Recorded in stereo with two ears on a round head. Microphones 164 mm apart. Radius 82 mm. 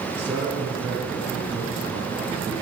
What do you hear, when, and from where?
0.1 s a man speaking: 10° right (ahead or behind), 5.5 m; by 2.5 s centre (ahead or behind), 4 m